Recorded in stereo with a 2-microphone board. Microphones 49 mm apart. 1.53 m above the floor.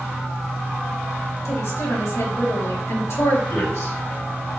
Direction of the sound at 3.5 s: 80° left.